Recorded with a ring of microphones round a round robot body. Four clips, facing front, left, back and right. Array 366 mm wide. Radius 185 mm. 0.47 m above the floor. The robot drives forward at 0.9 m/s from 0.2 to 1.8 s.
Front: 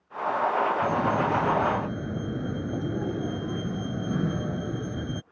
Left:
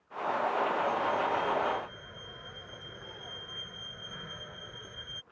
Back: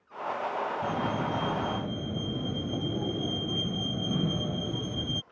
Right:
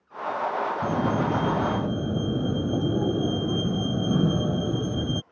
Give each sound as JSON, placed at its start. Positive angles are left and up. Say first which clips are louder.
{"t": 0.8, "sound": "a fire alarm", "louder": "right 5 dB, front 6 dB", "azimuth_deg": -80}